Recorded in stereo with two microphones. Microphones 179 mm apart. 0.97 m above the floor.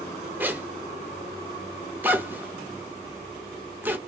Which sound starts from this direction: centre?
A zipper, at 0.4 s.